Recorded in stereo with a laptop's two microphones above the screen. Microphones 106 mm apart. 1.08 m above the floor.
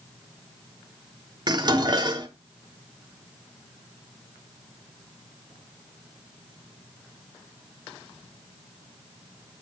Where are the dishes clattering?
45° right (ahead or behind), 1.5 m.